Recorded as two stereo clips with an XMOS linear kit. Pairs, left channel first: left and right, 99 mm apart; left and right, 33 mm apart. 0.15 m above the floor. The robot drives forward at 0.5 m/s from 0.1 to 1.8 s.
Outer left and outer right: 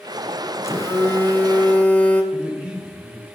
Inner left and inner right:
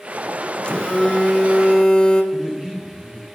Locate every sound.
0.6 s a phone buzzing: 30° left (ahead or behind), 0.8 m; by 2.2 s 20° left (ahead or behind), 1.2 m
2.3 s a man speaking: 10° right (ahead or behind), 1.3 m